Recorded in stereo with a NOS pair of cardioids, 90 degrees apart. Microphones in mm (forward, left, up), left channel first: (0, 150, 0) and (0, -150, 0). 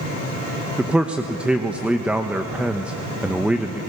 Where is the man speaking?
5° right, 1.1 m.